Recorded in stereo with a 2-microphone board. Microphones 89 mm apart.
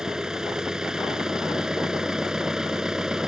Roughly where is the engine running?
Centre.